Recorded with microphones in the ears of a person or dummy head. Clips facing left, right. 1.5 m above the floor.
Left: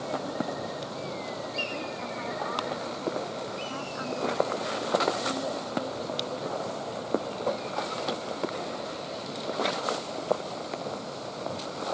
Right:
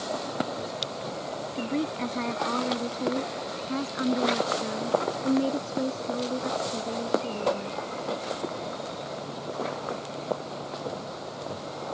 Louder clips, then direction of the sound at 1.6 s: Right 6 dB; 55° right (ahead or behind).